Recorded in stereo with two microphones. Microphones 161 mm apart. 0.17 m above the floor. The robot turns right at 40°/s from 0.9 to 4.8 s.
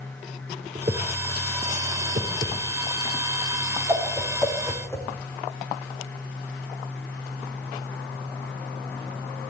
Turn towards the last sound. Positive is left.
turn(degrees=15)  # may be behind; listen again after turning